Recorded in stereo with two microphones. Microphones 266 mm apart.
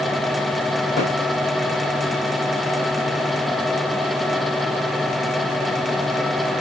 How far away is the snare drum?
About 9.5 m.